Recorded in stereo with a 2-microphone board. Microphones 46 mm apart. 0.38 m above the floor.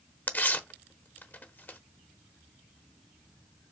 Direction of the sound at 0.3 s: 40° left (ahead or behind).